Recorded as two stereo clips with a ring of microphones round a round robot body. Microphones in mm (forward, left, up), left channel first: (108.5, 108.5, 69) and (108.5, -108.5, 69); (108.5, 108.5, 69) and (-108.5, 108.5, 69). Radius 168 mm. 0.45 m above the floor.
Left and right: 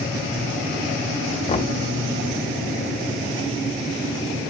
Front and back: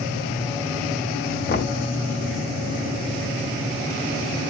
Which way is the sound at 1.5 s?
35° left.